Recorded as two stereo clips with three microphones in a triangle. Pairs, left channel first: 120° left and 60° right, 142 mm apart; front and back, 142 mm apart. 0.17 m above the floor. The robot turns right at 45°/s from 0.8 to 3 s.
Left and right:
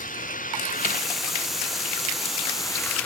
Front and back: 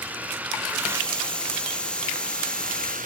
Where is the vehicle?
100° left; by 3.1 s 160° right.